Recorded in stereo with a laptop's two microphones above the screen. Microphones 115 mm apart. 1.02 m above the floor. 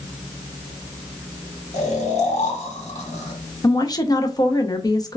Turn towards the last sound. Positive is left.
turn(degrees=35)  # may be behind; listen again after turning